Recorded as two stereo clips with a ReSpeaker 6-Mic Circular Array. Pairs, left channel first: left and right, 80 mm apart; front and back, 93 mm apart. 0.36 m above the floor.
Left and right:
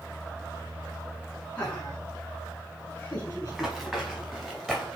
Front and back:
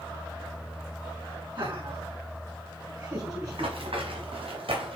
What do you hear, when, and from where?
1.6 s laughter: 165° left, 4 m; by 3.8 s 130° left, 1.8 m
3.5 s running footsteps: straight behind, 4 m